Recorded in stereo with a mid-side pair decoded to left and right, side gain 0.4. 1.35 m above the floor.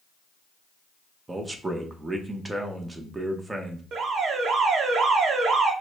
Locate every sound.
1.3 s a man speaking: 25° right, 1.1 m
3.9 s an alarm: 65° right, 0.9 m